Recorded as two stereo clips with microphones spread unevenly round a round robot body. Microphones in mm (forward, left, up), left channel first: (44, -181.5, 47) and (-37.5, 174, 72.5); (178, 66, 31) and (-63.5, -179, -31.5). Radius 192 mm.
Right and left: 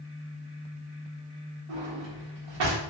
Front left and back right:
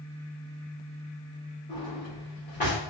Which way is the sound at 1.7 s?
115° left.